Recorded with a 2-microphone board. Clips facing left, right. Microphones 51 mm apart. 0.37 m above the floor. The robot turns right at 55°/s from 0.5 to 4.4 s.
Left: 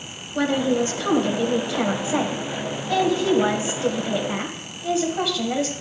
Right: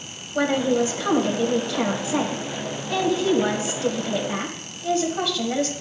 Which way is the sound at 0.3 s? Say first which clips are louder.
Even; 40° right.